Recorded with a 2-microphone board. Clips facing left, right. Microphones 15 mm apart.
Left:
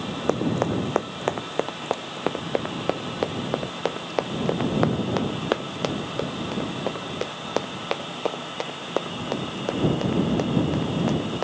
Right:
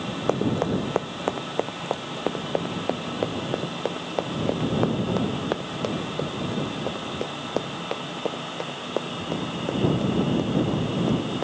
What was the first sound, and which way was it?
Running footsteps, 10° left (ahead or behind).